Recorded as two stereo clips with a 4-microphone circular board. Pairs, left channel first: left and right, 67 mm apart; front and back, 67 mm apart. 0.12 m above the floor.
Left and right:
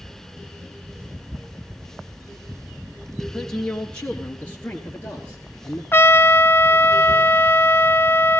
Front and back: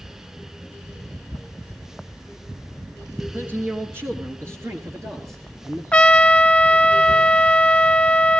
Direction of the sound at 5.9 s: 65° left.